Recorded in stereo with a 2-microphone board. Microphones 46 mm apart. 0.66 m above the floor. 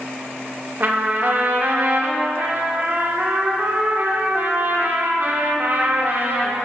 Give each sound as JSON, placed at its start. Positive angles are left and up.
{"t": 0.8, "sound": "a trumpet", "side_deg": -45, "distance_m": 0.7}